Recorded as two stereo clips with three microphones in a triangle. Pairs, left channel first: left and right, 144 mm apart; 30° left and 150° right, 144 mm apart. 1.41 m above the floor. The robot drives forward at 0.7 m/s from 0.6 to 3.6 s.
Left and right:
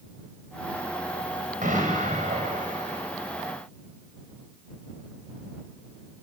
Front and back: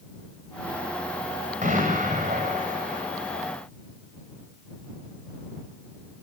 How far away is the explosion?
About 8.5 m.